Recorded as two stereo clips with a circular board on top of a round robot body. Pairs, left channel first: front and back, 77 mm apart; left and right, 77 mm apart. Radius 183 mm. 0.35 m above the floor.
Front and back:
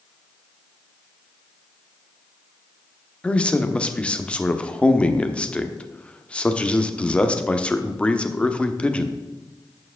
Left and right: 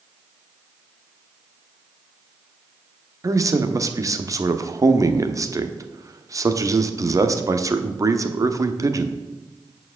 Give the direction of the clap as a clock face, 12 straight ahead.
I don't hear a clap.